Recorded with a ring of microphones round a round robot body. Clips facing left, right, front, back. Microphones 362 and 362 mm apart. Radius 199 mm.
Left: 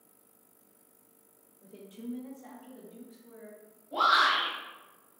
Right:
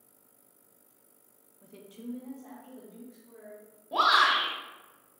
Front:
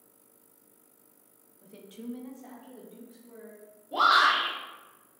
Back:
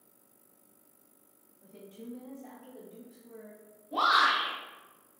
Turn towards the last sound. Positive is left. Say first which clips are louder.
# right 1 dB, front 2 dB
turn(degrees=-75)